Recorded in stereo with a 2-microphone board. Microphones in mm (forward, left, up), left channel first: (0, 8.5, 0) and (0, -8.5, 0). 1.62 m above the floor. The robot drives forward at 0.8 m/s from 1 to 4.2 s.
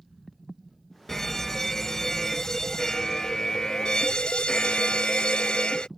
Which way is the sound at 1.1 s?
15° left (ahead or behind).